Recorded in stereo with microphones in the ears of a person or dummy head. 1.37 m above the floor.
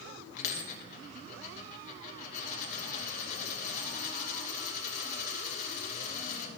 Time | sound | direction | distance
0.4 | a dropped coin | 35° left (ahead or behind) | 2.5 m